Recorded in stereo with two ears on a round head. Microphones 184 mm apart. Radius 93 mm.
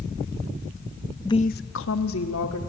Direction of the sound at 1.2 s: 15° left (ahead or behind).